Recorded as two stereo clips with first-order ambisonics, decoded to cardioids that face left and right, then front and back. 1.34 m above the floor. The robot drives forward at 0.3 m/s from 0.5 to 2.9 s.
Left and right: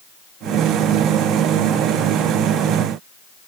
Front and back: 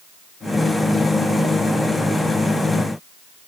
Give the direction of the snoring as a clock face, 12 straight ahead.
I don't hear snoring.